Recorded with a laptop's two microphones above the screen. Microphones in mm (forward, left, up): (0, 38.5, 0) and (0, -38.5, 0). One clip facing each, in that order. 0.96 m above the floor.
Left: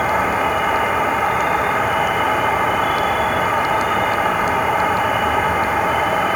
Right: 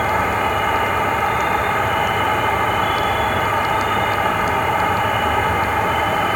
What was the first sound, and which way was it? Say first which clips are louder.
An insect: left 1 dB; 5° left (ahead or behind).